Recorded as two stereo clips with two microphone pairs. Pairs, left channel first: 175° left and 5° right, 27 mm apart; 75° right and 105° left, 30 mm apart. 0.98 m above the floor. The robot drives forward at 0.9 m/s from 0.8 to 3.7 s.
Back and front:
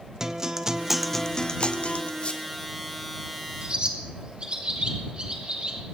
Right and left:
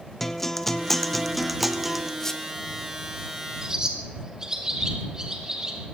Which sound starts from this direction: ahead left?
A bird, at 3.6 s.